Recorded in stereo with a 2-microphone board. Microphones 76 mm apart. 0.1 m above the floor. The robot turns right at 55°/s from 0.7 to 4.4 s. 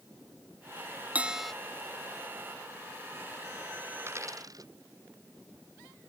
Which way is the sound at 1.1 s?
20° right (ahead or behind).